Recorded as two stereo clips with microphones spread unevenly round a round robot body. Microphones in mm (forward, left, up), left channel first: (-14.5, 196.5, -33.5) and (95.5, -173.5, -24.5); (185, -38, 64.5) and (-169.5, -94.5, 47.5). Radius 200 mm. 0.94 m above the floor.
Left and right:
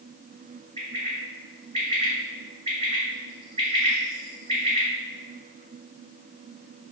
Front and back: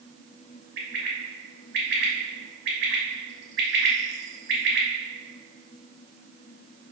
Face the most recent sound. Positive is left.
turn(degrees=-150)